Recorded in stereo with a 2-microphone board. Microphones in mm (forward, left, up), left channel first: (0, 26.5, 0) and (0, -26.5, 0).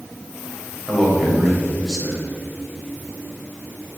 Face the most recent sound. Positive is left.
turn(degrees=5)  # may be behind; listen again after turning